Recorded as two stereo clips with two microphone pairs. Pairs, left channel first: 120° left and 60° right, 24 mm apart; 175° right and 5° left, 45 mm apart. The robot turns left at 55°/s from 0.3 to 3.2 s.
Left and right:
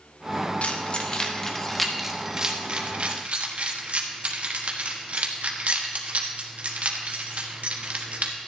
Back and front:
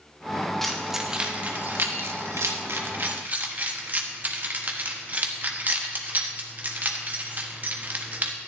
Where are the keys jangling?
100° left, 1.3 m; by 8.3 s 45° right, 1.3 m.